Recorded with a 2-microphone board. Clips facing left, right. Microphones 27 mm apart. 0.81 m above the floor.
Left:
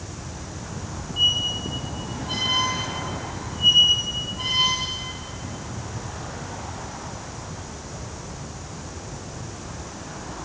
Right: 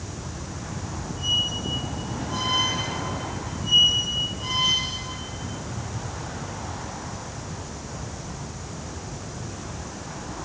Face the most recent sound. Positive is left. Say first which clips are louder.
# left 4 dB
turn(degrees=80)